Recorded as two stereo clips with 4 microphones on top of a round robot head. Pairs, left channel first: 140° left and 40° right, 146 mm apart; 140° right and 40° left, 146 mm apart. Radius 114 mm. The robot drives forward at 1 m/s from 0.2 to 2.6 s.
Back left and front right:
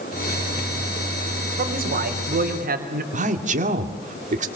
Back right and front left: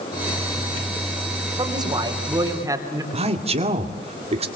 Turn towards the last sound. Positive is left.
turn(degrees=-5)